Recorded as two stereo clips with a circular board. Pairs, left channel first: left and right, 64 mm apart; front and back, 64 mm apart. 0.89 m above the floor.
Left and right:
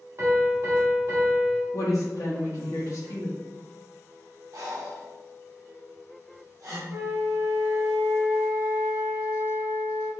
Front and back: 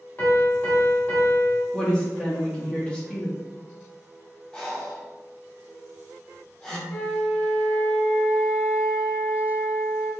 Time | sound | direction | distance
0.2 | a piano | 55° right | 0.7 m
1.7 | a woman speaking | 75° left | 0.9 m
4.5 | breathing | 70° right | 0.7 m
6.9 | a flute | 60° right | 0.9 m